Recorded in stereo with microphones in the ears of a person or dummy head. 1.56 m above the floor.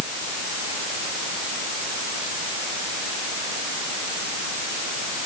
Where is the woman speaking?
No woman speaking in this recording.